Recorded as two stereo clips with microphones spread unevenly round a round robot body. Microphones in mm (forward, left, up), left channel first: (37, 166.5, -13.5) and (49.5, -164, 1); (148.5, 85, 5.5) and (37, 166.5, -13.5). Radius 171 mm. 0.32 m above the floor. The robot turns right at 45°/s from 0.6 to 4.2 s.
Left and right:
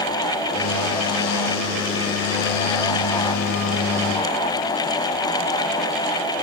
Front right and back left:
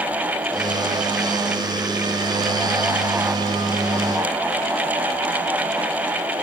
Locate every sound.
Only background noise.